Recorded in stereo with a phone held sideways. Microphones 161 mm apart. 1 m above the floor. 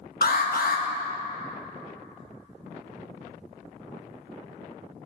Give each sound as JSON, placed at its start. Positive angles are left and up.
{"t": 0.2, "sound": "an alarm", "side_deg": 65, "distance_m": 1.1}